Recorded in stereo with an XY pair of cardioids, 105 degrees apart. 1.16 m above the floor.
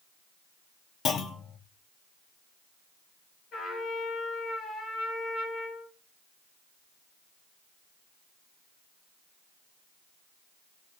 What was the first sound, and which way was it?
A clunk, 55° left.